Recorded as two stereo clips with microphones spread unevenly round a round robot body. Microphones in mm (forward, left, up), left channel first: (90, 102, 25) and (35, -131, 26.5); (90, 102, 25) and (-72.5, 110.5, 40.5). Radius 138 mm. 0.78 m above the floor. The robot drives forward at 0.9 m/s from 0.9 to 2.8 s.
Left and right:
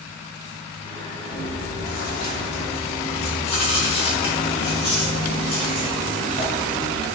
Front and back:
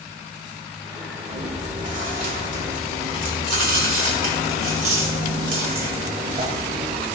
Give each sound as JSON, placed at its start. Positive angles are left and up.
{"t": 1.3, "sound": "chewing", "azimuth_deg": 125, "distance_m": 2.0}